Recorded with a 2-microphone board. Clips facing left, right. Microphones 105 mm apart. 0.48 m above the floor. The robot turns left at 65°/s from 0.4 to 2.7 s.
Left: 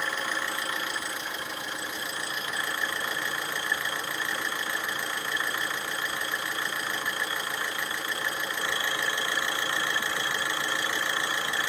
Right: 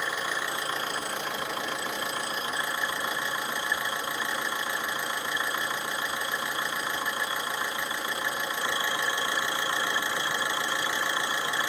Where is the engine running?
10° right, 0.7 m; by 11.7 s 160° right, 0.7 m.